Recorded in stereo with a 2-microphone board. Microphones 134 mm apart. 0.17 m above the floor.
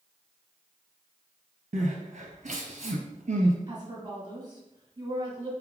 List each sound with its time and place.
1.7 s crying: 65° right (ahead or behind), 0.7 m
3.7 s a woman speaking: 30° right (ahead or behind), 1.6 m